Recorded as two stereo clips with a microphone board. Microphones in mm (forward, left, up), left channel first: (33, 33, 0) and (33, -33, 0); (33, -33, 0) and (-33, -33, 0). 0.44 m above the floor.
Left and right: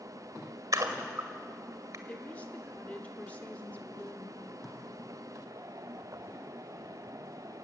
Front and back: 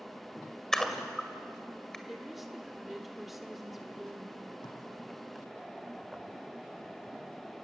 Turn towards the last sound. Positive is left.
turn(degrees=0)